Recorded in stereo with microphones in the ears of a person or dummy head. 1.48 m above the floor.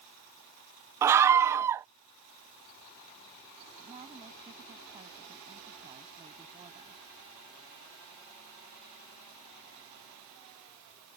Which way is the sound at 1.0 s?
15° right (ahead or behind).